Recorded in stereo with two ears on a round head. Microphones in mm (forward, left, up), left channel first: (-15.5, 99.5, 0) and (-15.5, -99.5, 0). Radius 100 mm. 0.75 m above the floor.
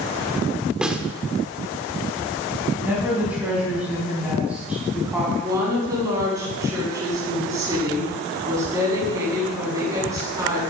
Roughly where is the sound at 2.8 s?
Centre.